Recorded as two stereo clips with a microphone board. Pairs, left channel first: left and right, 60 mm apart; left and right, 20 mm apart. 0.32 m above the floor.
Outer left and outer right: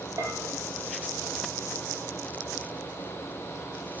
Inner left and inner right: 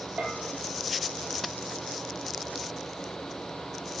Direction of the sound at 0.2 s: 75° right (ahead or behind).